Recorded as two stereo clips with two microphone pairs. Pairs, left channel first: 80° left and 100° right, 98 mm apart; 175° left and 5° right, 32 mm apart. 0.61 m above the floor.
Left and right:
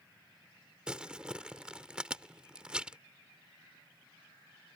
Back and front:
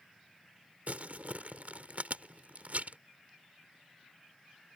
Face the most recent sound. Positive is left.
turn(degrees=-25)